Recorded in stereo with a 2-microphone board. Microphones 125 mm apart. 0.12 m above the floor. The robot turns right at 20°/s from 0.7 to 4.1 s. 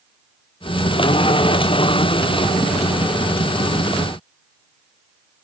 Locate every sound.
Only background noise.